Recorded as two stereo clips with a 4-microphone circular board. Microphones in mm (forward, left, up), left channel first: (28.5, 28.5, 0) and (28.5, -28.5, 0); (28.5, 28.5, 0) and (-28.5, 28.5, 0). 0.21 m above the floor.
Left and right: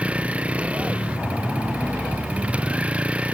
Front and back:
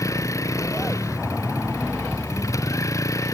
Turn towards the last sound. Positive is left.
turn(degrees=-20)